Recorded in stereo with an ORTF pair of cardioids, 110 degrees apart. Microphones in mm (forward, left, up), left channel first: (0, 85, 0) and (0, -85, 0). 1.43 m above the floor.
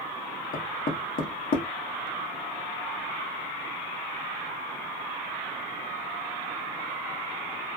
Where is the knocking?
55° left, 1.0 m.